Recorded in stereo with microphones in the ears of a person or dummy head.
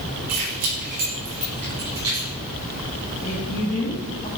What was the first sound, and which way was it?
Keys jangling, 45° right (ahead or behind).